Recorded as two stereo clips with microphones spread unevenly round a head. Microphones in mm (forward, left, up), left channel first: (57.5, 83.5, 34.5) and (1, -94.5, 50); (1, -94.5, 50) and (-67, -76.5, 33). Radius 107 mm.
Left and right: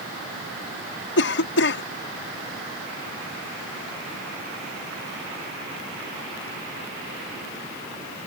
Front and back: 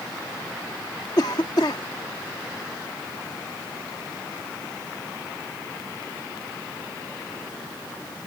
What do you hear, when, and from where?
1.2 s a cough: 45° left